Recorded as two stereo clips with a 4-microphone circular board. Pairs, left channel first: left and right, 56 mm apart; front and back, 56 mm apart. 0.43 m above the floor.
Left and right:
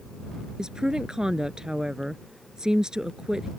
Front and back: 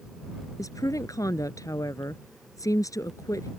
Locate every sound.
0.6 s a woman speaking: 10° right